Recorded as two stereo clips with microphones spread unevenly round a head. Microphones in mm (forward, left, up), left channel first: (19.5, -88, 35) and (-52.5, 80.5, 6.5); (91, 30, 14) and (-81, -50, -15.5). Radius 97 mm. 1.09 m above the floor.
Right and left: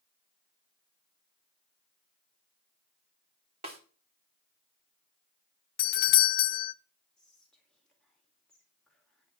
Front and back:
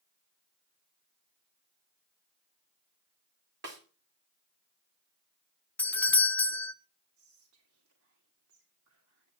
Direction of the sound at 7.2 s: 155° right.